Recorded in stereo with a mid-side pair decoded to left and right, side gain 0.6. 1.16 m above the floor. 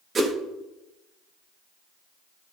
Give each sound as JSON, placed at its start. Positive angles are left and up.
{"t": 0.1, "sound": "a whoosh", "azimuth_deg": -35, "distance_m": 1.3}